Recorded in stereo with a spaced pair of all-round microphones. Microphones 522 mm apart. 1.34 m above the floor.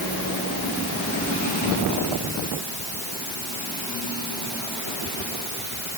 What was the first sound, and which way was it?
Only background noise.